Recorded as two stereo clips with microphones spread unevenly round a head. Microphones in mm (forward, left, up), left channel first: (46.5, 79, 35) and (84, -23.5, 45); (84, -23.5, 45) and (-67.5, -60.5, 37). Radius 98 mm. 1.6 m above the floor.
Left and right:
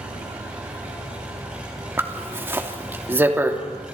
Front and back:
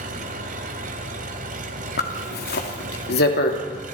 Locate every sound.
0.0 s an engine running: 145° right, 2 m
2.0 s a zipper: straight ahead, 2.5 m